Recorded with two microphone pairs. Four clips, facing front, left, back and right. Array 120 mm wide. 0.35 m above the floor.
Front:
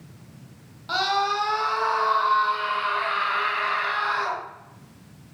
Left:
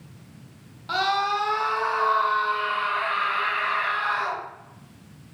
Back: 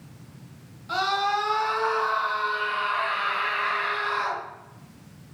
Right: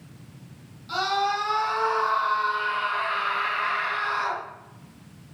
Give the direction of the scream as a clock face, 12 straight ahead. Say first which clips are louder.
Left 1 dB, front 1 dB; 11 o'clock.